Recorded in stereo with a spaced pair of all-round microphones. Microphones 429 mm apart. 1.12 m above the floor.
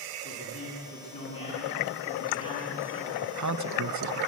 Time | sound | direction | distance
0.2 | a man speaking | 50° left (ahead or behind) | 9.5 m
3.2 | a man speaking | 40° right (ahead or behind) | 0.7 m